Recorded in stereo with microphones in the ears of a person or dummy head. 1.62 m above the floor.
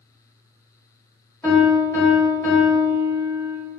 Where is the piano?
20° left (ahead or behind), 1.9 m.